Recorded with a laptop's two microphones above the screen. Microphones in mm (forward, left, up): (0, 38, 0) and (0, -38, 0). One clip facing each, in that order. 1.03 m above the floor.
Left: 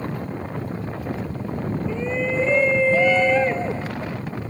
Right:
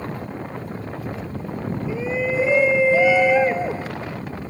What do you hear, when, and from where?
1.9 s a shout: 5° right (ahead or behind); by 3.9 s 10° right (ahead or behind)